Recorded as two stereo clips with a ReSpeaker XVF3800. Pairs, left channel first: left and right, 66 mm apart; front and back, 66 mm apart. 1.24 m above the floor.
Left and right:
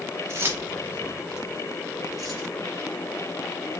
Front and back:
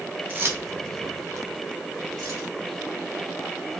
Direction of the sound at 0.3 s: 125° right.